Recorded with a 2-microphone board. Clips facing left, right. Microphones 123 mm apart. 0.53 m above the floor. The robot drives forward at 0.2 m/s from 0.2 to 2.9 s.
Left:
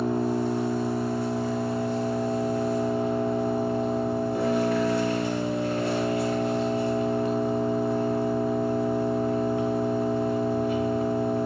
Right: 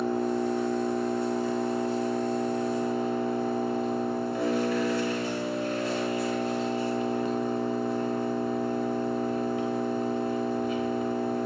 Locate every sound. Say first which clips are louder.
0.0 s an engine running: left 2 dB; 45° left (ahead or behind), 1.1 m; by 11.5 s 65° left (ahead or behind), 0.9 m